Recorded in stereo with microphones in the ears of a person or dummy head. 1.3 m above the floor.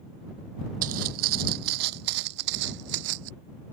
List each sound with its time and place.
0.8 s footsteps: 45° right (ahead or behind); by 3.3 s 65° right (ahead or behind)